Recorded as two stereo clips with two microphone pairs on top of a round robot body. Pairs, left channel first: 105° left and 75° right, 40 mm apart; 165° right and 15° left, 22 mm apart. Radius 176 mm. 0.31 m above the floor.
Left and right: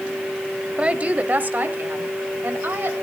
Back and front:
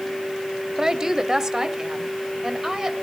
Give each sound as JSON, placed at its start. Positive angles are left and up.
{"t": 0.8, "sound": "a woman speaking", "azimuth_deg": -30, "distance_m": 1.4}